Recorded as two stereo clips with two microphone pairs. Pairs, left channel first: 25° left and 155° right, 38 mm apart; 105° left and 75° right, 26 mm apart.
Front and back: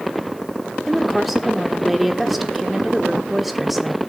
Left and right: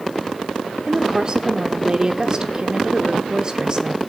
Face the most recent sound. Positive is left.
turn(degrees=-70)